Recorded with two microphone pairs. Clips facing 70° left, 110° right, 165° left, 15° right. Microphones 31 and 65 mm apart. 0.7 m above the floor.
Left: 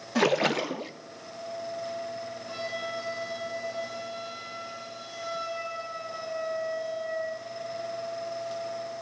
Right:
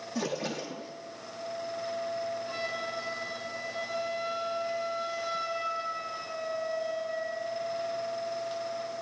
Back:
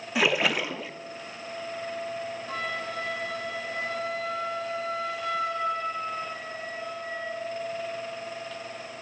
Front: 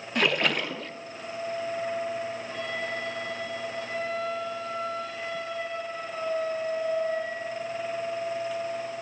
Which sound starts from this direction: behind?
A flute, at 2.5 s.